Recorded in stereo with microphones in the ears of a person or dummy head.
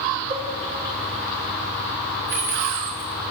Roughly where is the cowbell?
Right.